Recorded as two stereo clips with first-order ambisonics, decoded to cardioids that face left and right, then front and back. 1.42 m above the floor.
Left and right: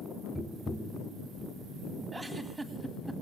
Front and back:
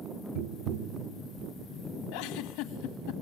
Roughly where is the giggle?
Ahead.